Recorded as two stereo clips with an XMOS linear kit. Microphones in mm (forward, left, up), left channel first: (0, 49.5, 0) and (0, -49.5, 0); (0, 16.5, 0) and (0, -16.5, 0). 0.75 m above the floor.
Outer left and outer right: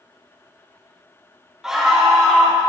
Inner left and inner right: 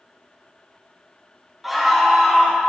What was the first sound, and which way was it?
A scream, 5° right (ahead or behind).